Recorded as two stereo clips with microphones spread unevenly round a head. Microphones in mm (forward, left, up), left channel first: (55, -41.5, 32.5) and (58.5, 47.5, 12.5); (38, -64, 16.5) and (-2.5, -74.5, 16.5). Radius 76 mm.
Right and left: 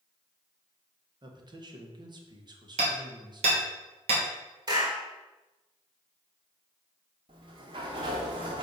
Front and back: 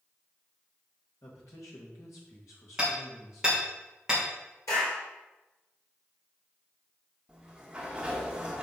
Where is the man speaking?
55° left, 1.7 m.